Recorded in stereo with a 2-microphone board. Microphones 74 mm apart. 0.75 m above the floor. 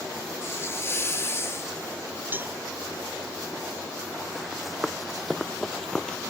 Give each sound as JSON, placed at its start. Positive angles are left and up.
{"t": 0.4, "sound": "a hiss", "side_deg": 35}
{"t": 2.3, "sound": "a cowbell", "side_deg": -25}
{"t": 4.3, "sound": "running footsteps", "side_deg": -5}